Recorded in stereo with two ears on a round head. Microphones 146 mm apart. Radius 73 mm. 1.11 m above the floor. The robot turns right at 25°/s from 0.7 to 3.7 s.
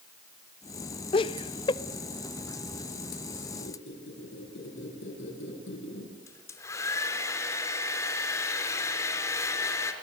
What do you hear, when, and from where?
1.1 s laughter: 30° left (ahead or behind), 0.6 m; by 1.8 s 25° left (ahead or behind), 0.6 m
3.6 s a squeak: 80° left, 6 m; by 6.2 s 85° left, 6 m
6.3 s a hair dryer: 15° left (ahead or behind), 4 m